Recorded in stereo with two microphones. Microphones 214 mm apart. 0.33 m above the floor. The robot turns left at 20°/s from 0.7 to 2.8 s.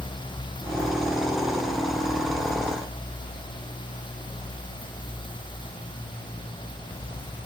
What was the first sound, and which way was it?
Only background noise.